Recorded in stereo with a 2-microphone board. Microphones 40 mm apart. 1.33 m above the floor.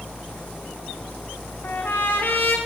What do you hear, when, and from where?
1.6 s a trumpet: 65° left (ahead or behind), 1.9 m